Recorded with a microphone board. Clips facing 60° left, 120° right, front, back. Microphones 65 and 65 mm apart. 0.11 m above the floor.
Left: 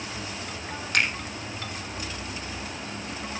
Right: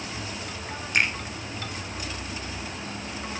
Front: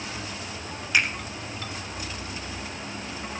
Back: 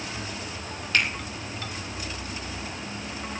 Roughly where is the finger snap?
Left.